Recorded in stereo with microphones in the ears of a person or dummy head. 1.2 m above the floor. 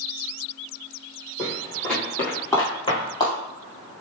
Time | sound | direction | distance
1.4 | footsteps | 10° right (ahead or behind) | 1.8 m